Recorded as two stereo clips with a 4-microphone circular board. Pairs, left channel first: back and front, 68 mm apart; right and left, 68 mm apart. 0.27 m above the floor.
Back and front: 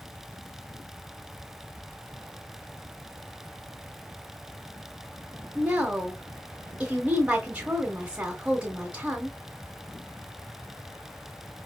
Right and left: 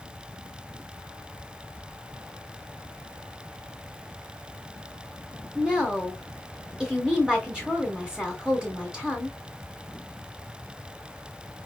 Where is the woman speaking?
35° left, 1.0 m.